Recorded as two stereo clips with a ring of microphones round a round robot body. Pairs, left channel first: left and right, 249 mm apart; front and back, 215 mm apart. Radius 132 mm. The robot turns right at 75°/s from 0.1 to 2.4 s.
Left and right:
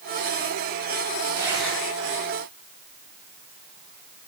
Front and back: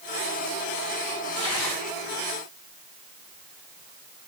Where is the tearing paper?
20° right, 9.5 m; by 4.3 s 60° left, 9.5 m.